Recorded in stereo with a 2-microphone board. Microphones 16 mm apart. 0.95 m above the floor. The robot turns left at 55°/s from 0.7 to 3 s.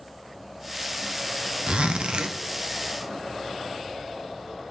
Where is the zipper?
80° right, 0.6 m; by 2.4 s 120° right, 0.6 m.